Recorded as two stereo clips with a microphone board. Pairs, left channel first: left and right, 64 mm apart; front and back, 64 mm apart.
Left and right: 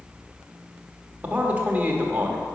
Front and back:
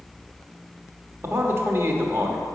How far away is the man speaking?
About 1.1 m.